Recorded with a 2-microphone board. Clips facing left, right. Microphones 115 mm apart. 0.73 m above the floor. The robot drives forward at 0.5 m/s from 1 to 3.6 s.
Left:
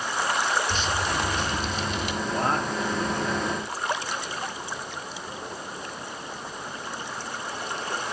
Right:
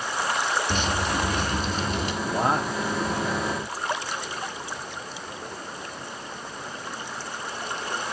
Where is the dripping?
55° right (ahead or behind), 1.3 m; by 2.1 s 45° right (ahead or behind), 1.6 m.